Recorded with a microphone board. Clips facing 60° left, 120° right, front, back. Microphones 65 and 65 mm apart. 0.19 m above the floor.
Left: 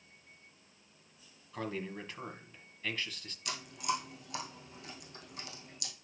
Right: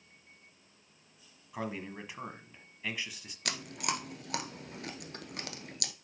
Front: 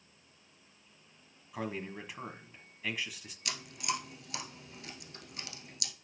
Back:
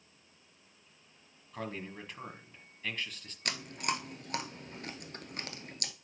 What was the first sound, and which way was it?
A man speaking, 65° right.